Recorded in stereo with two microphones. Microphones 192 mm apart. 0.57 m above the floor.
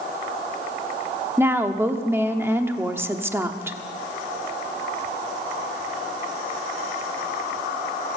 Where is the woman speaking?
10° right (ahead or behind), 1.0 m.